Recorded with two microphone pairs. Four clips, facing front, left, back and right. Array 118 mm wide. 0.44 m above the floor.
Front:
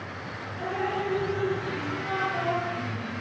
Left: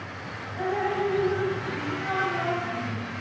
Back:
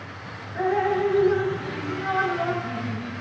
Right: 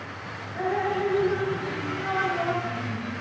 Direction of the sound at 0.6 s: 165° right.